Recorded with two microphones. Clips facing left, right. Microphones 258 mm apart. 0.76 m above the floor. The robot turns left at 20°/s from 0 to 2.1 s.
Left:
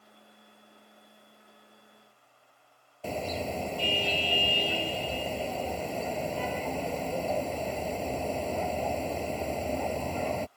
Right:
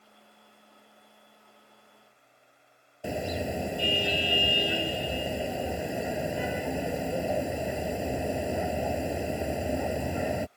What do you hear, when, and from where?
3.0 s a car horn: 10° right (ahead or behind)